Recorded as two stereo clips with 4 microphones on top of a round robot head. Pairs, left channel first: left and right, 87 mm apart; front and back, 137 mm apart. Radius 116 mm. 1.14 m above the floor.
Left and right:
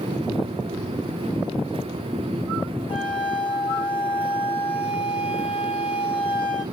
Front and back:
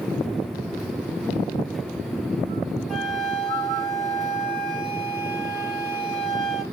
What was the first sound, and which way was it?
A flute, 85° left.